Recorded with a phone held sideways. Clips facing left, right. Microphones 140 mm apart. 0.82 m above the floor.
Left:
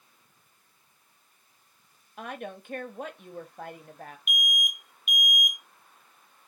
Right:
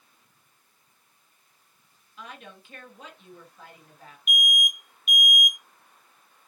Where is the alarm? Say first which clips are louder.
Right 5 dB; 45° right (ahead or behind), 1.1 m.